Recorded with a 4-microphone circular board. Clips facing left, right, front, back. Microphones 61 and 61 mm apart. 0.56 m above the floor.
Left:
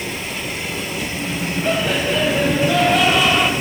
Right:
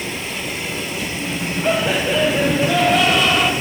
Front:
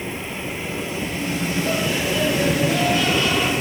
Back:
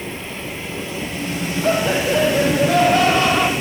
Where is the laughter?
165° right, 2.5 m; by 3.5 s 170° left, 1.9 m.